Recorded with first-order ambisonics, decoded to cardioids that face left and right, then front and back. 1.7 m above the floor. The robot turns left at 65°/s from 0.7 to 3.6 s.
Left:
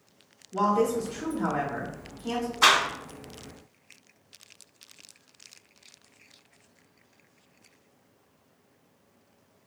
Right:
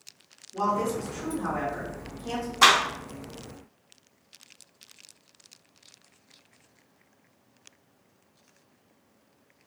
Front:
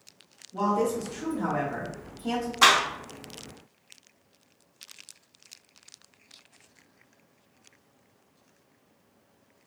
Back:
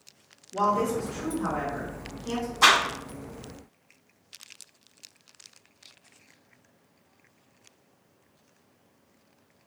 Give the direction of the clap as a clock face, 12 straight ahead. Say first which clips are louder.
Right 2 dB, even; 2 o'clock.